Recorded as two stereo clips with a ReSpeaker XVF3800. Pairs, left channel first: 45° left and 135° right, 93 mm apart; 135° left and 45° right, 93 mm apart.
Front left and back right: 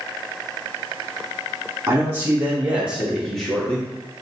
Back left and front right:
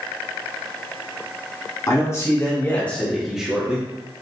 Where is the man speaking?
170° left, 1.1 m; by 3.9 s 10° right, 0.9 m.